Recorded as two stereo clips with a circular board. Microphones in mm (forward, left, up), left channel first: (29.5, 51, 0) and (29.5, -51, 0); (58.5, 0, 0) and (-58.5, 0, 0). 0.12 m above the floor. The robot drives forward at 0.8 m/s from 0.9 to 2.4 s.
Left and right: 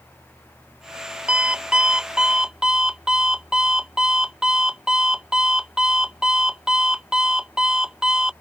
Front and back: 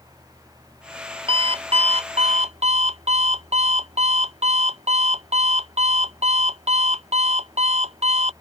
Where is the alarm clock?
165° right; by 8.3 s 175° right.